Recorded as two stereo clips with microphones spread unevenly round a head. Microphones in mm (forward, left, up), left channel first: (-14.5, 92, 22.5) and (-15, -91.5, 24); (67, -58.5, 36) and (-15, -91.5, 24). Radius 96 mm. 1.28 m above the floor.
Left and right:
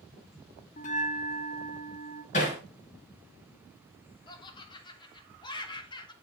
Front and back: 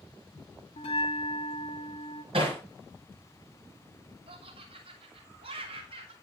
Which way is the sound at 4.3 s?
155° left.